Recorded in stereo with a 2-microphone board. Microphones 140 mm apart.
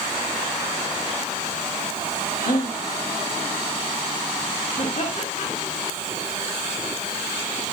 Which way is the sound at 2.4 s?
80° left.